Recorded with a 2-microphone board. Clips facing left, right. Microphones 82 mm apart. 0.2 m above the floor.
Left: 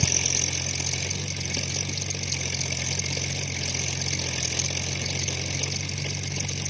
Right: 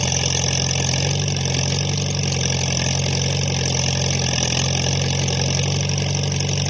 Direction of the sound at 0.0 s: 70° right (ahead or behind).